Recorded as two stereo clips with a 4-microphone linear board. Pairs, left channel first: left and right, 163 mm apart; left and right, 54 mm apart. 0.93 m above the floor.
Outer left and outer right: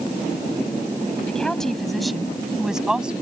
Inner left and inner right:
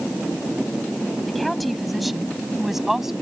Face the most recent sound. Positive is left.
turn(degrees=-5)  # may be behind; listen again after turning